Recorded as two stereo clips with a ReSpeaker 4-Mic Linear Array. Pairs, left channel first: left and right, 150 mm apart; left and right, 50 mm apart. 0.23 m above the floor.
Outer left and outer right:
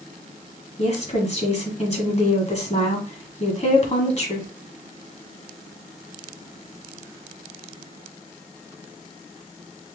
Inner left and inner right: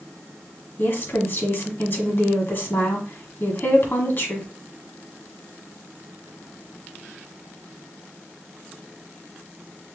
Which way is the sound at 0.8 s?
50° left (ahead or behind).